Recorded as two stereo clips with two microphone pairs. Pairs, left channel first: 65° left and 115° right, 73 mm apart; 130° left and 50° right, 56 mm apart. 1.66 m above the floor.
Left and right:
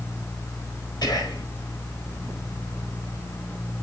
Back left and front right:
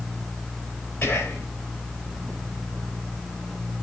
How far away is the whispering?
About 4 m.